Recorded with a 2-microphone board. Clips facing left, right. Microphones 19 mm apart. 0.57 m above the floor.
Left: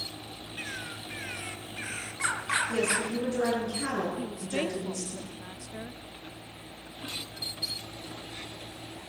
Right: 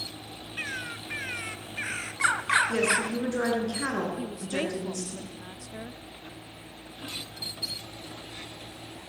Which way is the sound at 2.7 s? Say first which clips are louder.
Right 3 dB; 30° right (ahead or behind).